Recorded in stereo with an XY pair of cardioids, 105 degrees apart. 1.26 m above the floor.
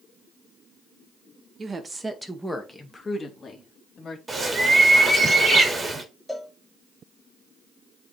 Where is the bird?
25° right, 2 m.